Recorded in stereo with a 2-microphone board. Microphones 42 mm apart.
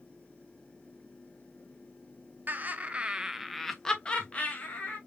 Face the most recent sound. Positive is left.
turn(degrees=45)  # may be behind; listen again after turning